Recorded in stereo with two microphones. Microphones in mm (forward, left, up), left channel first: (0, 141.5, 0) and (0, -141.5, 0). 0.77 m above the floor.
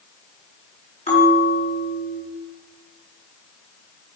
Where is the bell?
20° left (ahead or behind), 4.5 m.